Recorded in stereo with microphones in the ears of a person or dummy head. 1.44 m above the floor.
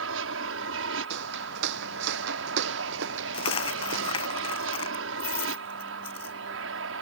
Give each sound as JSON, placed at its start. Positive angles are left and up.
{"t": 0.0, "sound": "an aircraft", "side_deg": -65}
{"t": 1.1, "sound": "footsteps", "side_deg": -60}
{"t": 3.3, "sound": "a dropped coin", "side_deg": 30}